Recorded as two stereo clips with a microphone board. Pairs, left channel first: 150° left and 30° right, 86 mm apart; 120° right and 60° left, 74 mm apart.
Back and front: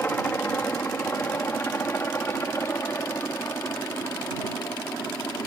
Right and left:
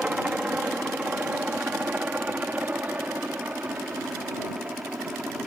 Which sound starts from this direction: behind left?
A helicopter, at 0.0 s.